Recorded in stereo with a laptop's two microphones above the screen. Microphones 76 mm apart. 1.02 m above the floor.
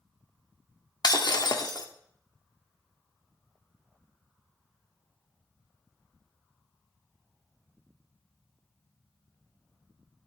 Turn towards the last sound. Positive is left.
turn(degrees=65)  # may be behind; listen again after turning